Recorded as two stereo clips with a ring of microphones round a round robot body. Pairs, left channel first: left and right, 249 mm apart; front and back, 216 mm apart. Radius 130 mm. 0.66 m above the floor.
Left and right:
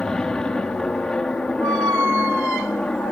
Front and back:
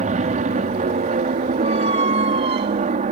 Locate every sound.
0.0 s an aircraft: 175° left
1.6 s a squeak: 110° right